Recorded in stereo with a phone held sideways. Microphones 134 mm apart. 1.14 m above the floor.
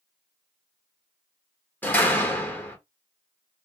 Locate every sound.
1.8 s a door slam: 15° left (ahead or behind), 0.9 m